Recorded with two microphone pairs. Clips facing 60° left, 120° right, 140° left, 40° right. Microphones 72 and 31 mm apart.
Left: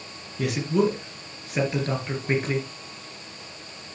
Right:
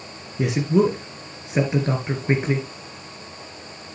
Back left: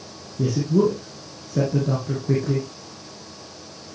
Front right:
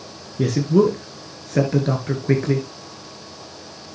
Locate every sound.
0.4 s a man speaking: 55° right, 2.5 m